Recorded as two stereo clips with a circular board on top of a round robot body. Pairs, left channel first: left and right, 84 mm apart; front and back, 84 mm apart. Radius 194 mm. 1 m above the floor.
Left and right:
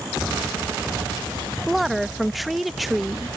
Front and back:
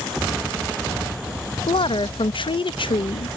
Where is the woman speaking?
Straight ahead.